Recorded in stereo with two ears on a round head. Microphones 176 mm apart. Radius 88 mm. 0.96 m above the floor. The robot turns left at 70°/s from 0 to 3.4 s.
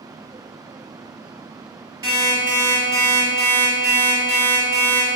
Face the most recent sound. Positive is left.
turn(degrees=-115)